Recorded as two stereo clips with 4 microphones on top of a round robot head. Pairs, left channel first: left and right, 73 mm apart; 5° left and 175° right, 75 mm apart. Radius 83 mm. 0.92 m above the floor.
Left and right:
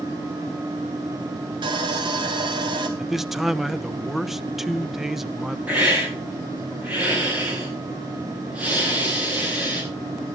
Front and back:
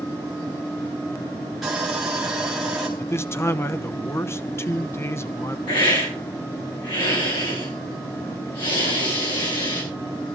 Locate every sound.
1.6 s sawing: 90° right, 2.5 m
3.0 s a man speaking: 5° right, 1.0 m
5.7 s a hiss: 20° right, 10 m